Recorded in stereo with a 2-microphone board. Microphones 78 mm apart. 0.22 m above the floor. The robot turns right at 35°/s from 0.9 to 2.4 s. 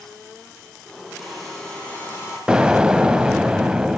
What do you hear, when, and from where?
1.2 s a hair dryer: 5° right, 9.5 m; by 2.4 s 40° left, 9.5 m
2.5 s an explosion: 10° right (ahead or behind), 0.5 m